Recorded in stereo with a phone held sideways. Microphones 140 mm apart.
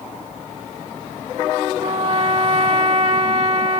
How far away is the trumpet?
About 1.5 m.